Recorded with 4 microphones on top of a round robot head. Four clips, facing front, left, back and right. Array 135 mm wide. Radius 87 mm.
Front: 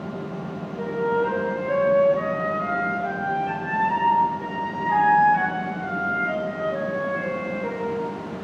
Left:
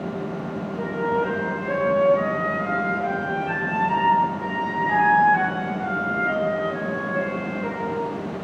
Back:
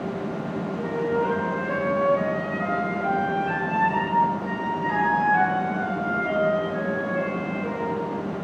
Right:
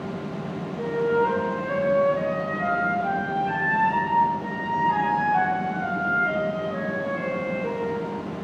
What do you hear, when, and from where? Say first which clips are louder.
0.8 s a flute: right 2 dB, front 2 dB; 60° left, 3 m